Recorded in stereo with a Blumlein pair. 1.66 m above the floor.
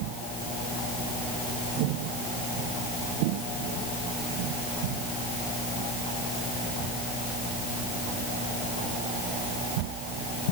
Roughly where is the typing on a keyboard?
I don't hear typing on a keyboard.